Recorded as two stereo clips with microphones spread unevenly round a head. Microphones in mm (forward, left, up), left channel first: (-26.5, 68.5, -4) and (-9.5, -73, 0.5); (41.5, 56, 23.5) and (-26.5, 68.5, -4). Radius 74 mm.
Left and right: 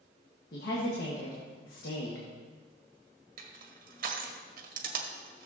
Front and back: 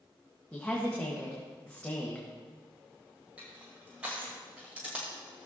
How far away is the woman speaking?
About 1.6 m.